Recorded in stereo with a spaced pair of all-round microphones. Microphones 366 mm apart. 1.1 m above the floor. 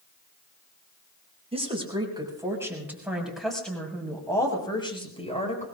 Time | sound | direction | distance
1.5 | a woman speaking | 15° right (ahead or behind) | 6.5 m